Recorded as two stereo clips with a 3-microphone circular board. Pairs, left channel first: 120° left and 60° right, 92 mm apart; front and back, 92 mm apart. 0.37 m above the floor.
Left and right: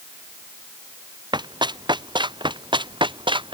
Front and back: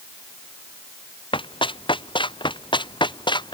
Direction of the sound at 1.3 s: 25° right.